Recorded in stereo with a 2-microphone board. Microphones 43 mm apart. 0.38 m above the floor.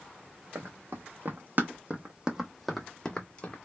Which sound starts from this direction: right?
Running footsteps, at 0.6 s.